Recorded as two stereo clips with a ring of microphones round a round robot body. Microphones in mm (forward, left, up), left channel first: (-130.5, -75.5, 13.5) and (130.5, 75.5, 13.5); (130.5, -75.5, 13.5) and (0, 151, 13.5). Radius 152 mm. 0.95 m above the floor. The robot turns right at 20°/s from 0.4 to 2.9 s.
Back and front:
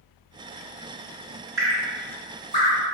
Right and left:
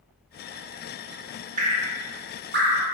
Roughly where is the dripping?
Left.